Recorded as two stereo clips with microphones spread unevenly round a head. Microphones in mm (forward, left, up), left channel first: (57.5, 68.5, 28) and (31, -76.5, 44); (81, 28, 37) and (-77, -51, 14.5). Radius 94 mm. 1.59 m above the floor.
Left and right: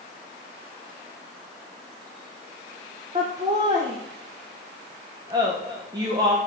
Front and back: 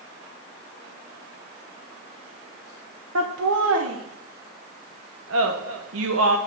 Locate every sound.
3.1 s laughter: 170° right, 1.0 m